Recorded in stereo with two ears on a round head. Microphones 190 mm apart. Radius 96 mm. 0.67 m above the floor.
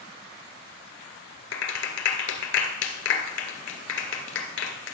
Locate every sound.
1.5 s a clap: 60° left (ahead or behind), 2 m